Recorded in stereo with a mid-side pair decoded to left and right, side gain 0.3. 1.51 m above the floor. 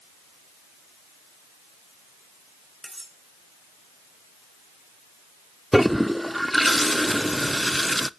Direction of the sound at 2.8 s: 20° right.